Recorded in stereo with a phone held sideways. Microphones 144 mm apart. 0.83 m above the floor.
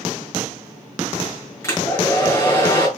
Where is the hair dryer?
20° left (ahead or behind), 6 m.